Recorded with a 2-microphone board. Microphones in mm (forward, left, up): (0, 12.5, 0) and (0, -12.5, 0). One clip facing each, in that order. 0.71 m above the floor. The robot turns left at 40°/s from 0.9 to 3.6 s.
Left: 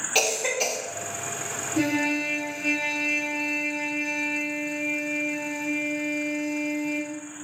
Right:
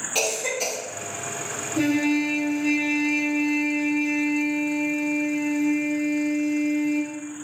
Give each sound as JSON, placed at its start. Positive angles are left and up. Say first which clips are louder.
{"t": 0.1, "sound": "a cough", "louder": "left 1 dB", "side_deg": 25, "distance_m": 0.7}
{"t": 1.8, "sound": "a trumpet", "louder": "right 3 dB", "azimuth_deg": 150, "distance_m": 1.2}